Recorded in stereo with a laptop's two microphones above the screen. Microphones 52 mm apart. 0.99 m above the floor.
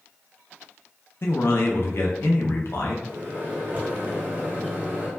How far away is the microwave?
About 0.7 m.